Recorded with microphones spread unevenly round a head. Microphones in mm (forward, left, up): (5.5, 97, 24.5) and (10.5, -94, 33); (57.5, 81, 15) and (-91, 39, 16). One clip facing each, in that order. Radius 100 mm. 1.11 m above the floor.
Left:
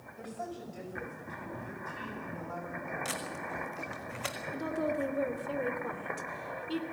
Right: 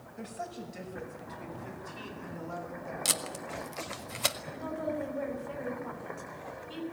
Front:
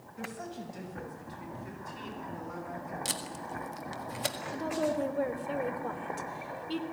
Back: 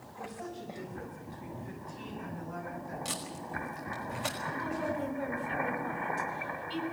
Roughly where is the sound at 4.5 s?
Ahead left.